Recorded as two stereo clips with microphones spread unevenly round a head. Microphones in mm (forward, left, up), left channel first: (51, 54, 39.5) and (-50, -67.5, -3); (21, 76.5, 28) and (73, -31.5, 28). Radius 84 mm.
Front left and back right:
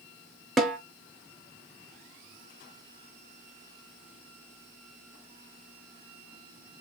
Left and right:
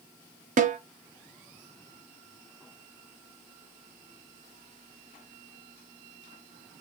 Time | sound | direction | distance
0.6 | a snare drum | 40° right | 0.9 m